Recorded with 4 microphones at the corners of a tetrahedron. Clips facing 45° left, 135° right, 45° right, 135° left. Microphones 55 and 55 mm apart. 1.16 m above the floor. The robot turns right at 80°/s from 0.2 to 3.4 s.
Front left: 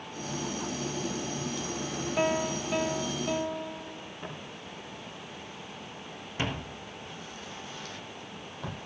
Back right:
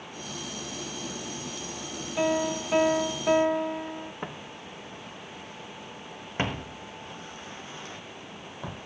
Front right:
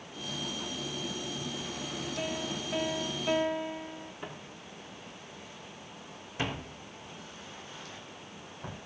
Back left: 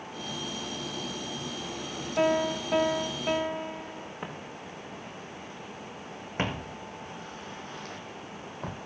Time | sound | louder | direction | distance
2.2 | a piano | back right 3 dB, back left 13 dB | 110° left | 1.8 m
4.2 | footsteps | back right 2 dB, back left 5 dB | 175° right | 4.5 m